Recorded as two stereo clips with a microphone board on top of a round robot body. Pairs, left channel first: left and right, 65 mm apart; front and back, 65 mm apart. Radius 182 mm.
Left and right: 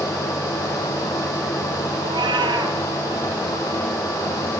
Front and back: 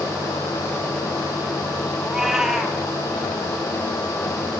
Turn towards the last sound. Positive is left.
turn(degrees=-95)